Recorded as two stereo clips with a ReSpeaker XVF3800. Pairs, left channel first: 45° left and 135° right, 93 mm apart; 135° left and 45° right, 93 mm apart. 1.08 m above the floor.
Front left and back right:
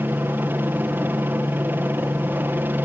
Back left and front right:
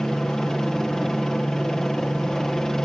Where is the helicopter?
150° right.